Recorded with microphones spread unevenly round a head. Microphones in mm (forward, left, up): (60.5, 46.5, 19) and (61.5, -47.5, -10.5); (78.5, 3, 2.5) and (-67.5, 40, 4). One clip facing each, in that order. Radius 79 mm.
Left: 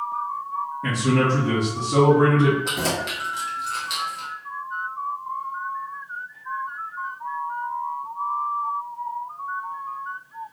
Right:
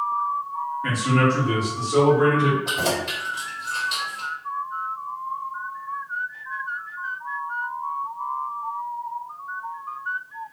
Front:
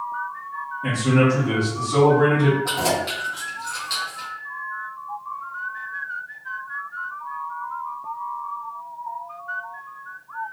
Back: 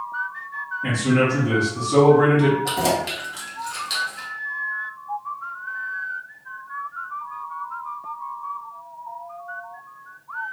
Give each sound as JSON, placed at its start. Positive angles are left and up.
{"t": 0.8, "sound": "a man speaking", "azimuth_deg": 80, "distance_m": 1.3}
{"t": 2.6, "sound": "keys jangling", "azimuth_deg": 105, "distance_m": 1.3}